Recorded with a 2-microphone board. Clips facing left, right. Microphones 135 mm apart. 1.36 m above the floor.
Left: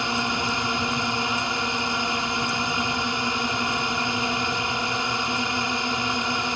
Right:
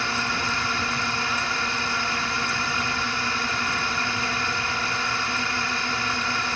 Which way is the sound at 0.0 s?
20° left (ahead or behind).